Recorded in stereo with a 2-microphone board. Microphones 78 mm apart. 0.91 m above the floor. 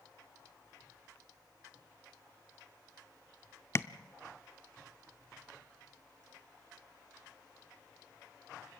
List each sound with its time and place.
3.8 s tapping: 35° left (ahead or behind), 0.6 m